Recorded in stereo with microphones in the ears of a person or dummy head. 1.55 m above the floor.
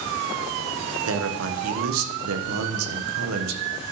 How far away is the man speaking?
About 1.2 m.